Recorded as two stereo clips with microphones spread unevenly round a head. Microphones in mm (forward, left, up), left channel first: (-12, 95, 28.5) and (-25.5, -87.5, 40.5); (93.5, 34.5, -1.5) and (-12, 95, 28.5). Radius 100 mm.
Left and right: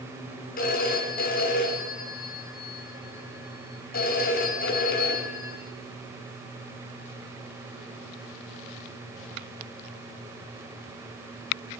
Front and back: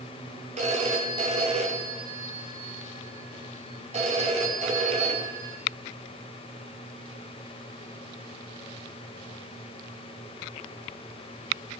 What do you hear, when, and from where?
0.6 s a phone ringing: 130° left, 4.5 m